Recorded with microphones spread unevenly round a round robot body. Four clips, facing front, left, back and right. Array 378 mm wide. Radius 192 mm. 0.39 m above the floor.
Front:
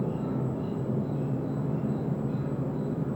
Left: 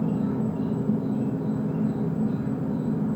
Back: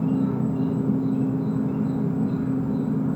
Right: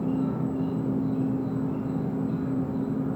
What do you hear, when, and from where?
0.0 s an insect: 165° left, 1.3 m